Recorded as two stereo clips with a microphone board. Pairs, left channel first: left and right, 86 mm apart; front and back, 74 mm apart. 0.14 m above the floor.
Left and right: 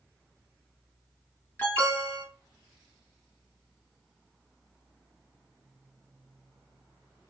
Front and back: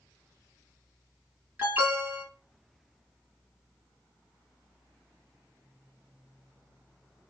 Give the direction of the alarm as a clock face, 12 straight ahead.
7 o'clock.